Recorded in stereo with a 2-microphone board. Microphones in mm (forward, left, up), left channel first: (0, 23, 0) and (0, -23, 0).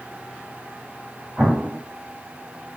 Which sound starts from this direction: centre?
An explosion, at 1.4 s.